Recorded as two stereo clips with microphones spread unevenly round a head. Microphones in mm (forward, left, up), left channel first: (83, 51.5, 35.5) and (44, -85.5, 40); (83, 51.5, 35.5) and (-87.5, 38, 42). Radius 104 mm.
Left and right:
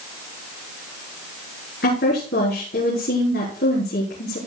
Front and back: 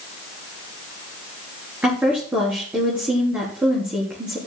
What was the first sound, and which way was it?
A woman speaking, 105° left.